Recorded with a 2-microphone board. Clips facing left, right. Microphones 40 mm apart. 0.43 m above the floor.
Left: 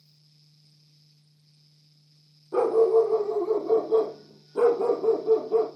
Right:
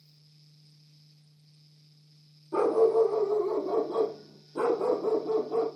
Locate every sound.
2.5 s a dog barking: 25° left (ahead or behind), 5 m; by 5.7 s 35° left (ahead or behind), 3.5 m